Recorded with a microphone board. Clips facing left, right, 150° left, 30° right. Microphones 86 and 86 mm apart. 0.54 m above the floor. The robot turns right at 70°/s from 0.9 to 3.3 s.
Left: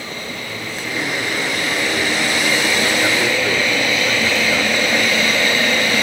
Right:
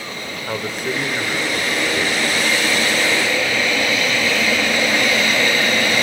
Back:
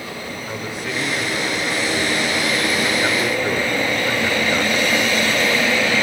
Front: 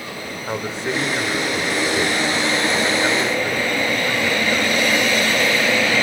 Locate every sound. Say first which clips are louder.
0.5 s a man speaking: right 7 dB, front 5 dB; 80° right, 1.9 m; by 5.5 s 90° left, 1.9 m